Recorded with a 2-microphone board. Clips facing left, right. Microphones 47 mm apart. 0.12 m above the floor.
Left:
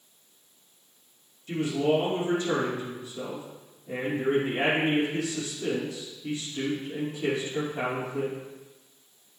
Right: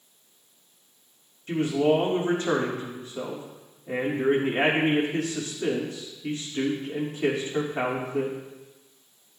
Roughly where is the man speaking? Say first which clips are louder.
Right 3 dB; right.